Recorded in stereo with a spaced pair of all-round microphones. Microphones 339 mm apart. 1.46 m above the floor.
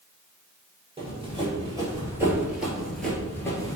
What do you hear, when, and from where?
1.0 s running footsteps: 15° right (ahead or behind), 1.9 m; by 3.8 s 10° left (ahead or behind), 1.4 m